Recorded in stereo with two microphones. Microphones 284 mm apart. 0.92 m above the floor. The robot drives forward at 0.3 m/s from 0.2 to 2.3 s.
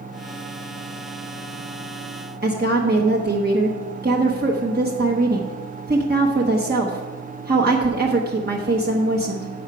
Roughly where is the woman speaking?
Right.